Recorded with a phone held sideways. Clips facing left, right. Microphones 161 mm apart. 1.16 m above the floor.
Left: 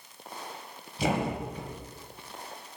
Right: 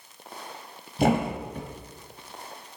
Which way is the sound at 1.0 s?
55° right (ahead or behind).